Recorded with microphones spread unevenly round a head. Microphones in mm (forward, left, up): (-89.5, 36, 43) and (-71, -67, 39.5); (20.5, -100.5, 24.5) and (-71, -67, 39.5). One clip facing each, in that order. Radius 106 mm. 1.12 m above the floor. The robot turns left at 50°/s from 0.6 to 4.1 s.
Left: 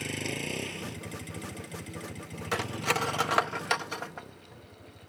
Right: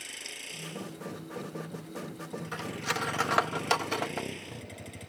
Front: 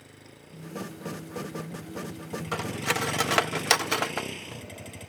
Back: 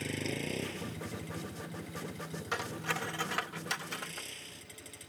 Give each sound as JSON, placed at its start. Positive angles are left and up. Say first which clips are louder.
{"t": 0.0, "sound": "a vehicle", "louder": "left 13 dB, back 14 dB", "azimuth_deg": 130}
{"t": 2.5, "sound": "cutlery clinking", "louder": "left 6 dB, front 6 dB", "azimuth_deg": 55}